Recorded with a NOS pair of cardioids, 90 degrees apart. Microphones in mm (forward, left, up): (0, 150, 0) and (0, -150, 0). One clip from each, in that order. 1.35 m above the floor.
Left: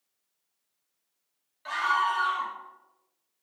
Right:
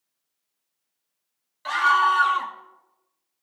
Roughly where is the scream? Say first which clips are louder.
Right 7 dB; ahead right.